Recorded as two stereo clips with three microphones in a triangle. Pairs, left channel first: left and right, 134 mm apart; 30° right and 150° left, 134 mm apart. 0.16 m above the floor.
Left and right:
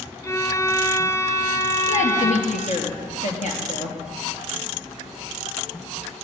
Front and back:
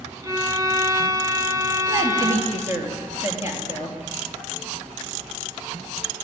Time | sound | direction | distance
0.2 | a violin | 130° left | 1.5 m
1.9 | a woman speaking | 85° left | 4 m